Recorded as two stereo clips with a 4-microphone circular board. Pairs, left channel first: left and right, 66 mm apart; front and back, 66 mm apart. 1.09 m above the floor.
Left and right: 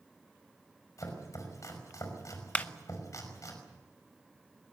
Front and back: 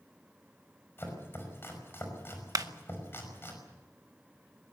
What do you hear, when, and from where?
1.0 s chopping: 55° left, 5.5 m
2.5 s a clap: 160° left, 0.7 m